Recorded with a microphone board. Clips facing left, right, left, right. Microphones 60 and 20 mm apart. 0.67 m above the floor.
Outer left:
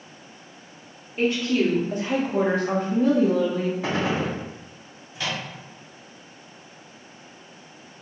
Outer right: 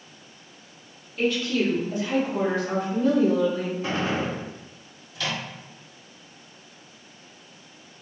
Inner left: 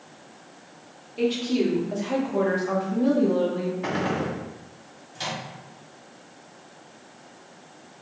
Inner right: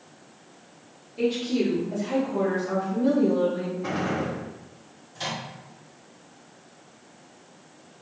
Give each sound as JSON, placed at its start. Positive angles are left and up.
{"t": 1.2, "sound": "a woman speaking", "side_deg": 30, "distance_m": 1.0}
{"t": 3.8, "sound": "a gunshot", "side_deg": 85, "distance_m": 0.7}
{"t": 5.2, "sound": "a microwave", "side_deg": 25, "distance_m": 1.7}